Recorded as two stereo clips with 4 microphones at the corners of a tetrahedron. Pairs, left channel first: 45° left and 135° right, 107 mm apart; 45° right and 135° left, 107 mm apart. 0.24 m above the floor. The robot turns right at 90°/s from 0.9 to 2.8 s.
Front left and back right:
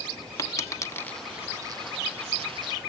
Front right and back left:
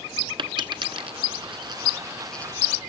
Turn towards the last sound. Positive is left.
turn(degrees=-85)